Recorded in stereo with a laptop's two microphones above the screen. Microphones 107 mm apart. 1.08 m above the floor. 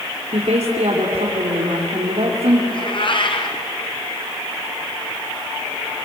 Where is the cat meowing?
50° left (ahead or behind), 2.5 m.